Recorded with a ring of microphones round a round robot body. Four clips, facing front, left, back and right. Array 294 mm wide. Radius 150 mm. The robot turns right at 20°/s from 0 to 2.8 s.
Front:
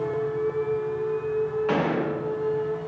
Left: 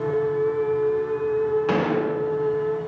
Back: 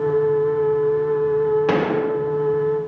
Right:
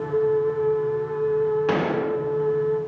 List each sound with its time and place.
1.7 s a gunshot: 175° right, 1.8 m; by 2.1 s 165° right, 1.8 m